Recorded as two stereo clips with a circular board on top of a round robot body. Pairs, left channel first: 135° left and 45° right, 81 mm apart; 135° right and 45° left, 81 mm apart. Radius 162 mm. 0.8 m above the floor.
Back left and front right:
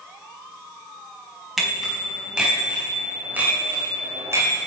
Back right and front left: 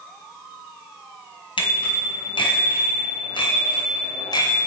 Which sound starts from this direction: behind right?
A bicycle bell, at 1.6 s.